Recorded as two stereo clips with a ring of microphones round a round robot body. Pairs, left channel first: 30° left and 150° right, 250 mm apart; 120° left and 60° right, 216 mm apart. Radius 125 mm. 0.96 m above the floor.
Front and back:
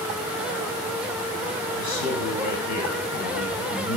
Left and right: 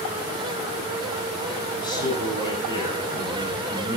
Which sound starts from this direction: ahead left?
A man speaking, at 1.8 s.